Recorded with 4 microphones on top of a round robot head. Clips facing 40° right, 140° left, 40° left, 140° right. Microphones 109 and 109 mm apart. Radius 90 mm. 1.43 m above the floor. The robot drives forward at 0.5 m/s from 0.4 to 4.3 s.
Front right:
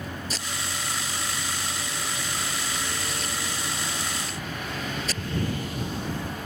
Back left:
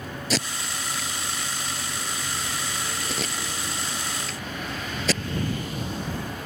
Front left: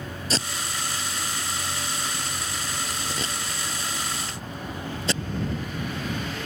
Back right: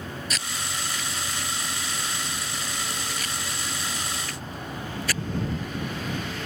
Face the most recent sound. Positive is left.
turn(degrees=110)